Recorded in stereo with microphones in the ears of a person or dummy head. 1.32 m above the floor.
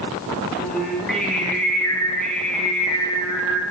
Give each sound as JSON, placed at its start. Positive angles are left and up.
{"t": 0.6, "sound": "singing", "side_deg": 5, "distance_m": 0.9}